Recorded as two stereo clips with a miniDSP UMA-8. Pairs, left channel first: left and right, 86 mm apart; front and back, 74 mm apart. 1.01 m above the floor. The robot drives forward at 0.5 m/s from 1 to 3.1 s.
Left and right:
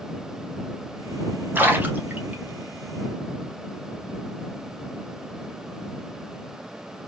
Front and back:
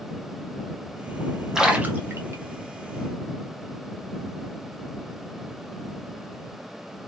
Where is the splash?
110° right, 0.5 m; by 2.4 s 155° right, 0.7 m.